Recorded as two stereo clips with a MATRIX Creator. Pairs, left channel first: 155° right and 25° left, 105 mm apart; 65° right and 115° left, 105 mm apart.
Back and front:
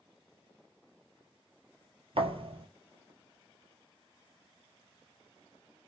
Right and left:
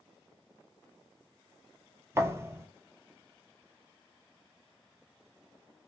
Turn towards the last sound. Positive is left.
turn(degrees=50)